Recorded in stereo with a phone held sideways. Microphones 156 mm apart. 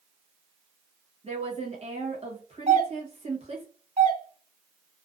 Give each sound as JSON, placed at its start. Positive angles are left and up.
{"t": 1.2, "sound": "a woman speaking", "side_deg": -40, "distance_m": 1.1}
{"t": 2.7, "sound": "a doorbell", "side_deg": -45, "distance_m": 2.0}